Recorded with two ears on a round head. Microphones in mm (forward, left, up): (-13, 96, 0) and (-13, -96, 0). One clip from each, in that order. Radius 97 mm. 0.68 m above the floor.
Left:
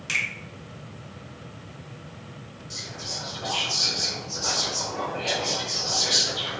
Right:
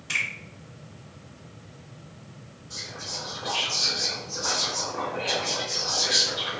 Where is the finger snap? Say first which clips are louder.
Left 1 dB; 70° left (ahead or behind), 1.7 m.